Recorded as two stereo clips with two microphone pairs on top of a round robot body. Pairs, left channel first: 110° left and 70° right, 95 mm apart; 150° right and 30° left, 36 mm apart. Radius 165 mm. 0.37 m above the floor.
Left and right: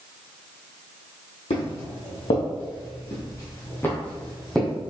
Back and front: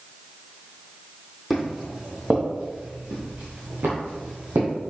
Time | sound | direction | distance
1.5 | footsteps | 115° left | 1.3 m